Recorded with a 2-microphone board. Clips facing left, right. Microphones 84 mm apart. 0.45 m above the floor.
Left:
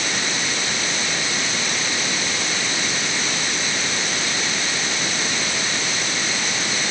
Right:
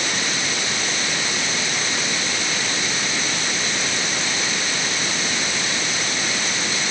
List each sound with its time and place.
Only background noise.